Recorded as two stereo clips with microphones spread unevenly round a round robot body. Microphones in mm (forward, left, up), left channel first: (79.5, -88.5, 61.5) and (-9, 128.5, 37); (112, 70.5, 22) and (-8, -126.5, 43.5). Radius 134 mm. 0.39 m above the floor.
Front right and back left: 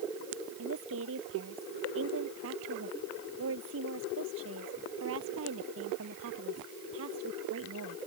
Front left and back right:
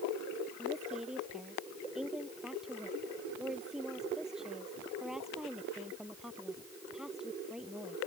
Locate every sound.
0.6 s a woman speaking: 150° left